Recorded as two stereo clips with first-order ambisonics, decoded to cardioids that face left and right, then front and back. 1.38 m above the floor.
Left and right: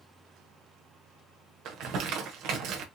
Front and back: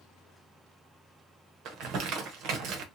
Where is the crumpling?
135° right, 1.1 m.